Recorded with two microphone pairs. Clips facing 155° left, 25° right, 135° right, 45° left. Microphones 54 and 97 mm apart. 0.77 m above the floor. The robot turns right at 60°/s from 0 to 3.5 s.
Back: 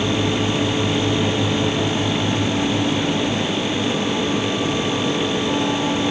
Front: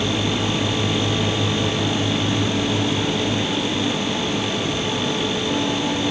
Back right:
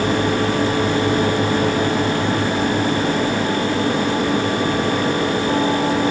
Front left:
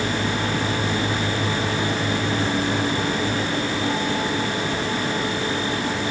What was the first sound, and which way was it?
Only background noise.